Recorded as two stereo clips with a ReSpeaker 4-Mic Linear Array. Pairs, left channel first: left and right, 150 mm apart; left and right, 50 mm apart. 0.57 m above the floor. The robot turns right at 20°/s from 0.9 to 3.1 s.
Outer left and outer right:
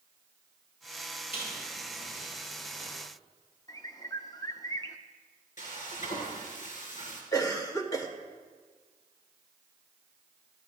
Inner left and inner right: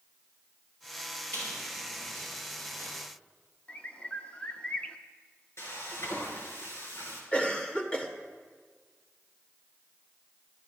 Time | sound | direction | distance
1.3 | a squeak | 40° left (ahead or behind) | 8.5 m
3.7 | a bird | 25° left (ahead or behind) | 0.9 m
5.6 | frying | 60° left (ahead or behind) | 4 m
7.3 | a cough | 25° left (ahead or behind) | 1.9 m